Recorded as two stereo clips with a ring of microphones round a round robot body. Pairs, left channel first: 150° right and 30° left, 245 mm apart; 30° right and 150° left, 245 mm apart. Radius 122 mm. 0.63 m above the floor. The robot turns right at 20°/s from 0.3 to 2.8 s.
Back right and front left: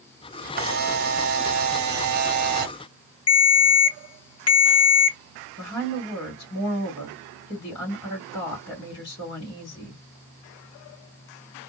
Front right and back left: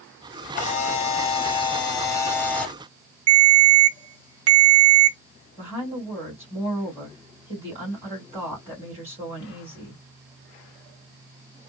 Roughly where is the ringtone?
Behind.